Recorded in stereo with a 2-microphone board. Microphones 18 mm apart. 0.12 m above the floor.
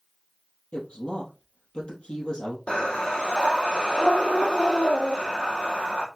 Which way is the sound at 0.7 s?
65° left (ahead or behind).